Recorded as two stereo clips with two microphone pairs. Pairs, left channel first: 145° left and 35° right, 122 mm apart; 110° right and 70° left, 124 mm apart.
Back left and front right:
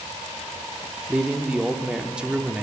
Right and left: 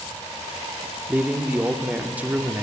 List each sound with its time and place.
1.1 s a man speaking: 25° left, 0.7 m